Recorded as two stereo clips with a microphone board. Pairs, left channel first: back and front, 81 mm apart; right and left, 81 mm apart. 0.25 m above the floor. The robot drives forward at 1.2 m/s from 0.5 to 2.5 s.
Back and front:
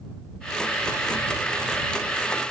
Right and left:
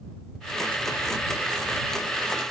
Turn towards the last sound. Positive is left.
No sound to turn to.